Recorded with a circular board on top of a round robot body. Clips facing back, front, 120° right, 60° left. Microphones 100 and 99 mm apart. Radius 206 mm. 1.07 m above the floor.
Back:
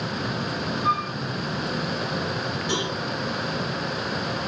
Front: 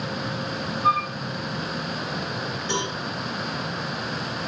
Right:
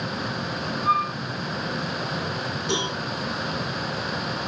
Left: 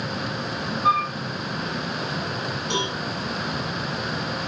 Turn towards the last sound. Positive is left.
turn(degrees=-100)